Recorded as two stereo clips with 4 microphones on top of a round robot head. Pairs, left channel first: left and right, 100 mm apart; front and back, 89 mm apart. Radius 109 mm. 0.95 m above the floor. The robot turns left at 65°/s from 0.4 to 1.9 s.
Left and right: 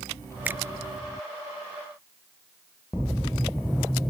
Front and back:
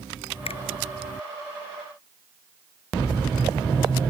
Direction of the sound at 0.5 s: 15° right.